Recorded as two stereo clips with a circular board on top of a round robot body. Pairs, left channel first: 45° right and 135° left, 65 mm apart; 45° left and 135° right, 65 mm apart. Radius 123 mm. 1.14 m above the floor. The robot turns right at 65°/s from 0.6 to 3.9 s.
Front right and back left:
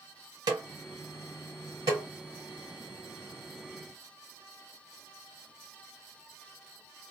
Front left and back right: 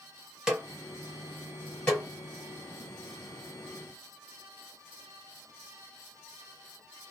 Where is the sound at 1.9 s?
110° left, 1.1 m; by 2.1 s 125° left, 1.1 m.